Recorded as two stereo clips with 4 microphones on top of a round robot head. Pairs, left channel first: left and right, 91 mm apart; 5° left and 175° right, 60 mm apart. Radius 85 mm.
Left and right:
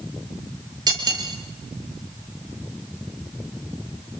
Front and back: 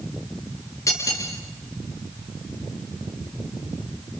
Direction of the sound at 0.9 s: 45° right.